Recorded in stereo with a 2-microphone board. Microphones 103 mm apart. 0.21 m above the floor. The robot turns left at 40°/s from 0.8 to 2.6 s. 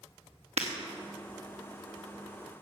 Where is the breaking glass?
85° right, 2.0 m.